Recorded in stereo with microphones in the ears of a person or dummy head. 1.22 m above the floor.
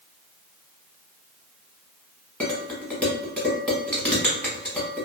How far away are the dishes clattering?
About 1.1 m.